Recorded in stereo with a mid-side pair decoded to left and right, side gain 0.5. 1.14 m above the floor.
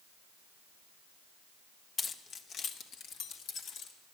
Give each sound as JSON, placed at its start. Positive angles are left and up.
{"t": 2.0, "sound": "keys jangling", "azimuth_deg": 35, "distance_m": 0.8}